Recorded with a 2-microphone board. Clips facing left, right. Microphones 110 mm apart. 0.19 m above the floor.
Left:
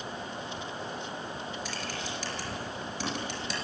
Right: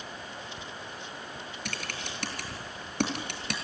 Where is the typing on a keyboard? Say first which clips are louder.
Left 2 dB; 65° right (ahead or behind), 4 m.